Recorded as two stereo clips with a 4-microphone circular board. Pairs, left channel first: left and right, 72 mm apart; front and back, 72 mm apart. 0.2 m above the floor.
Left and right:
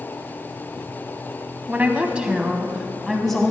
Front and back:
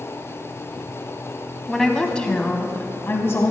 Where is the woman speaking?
85° right, 1.2 m; by 3.5 s 10° left, 1.4 m.